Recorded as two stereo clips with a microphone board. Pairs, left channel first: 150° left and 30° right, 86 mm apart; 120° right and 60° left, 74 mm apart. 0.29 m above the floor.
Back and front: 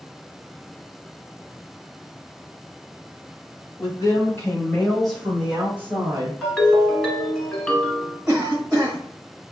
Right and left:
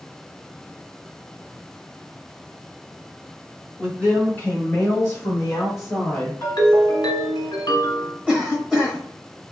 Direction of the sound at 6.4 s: 130° right.